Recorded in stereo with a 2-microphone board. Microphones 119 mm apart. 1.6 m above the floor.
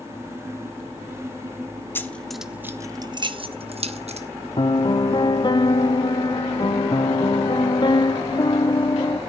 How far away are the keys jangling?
About 0.7 m.